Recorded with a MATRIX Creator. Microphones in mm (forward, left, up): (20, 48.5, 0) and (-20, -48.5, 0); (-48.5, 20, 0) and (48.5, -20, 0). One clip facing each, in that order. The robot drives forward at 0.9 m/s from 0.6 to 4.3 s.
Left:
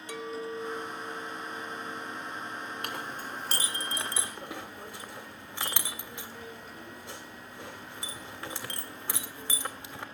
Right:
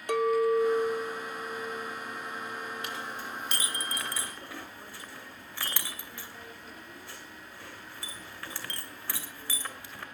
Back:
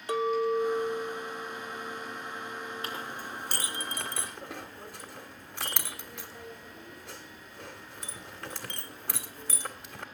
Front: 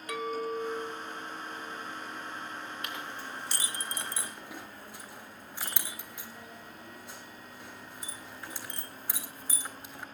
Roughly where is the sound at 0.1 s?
Behind right.